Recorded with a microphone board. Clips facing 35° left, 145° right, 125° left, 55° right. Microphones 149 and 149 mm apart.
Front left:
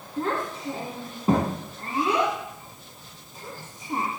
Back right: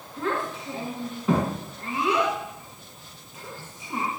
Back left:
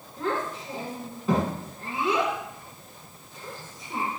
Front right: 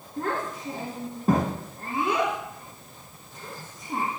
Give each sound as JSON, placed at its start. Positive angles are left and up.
{"t": 0.2, "sound": "a child speaking", "azimuth_deg": -15, "distance_m": 2.5}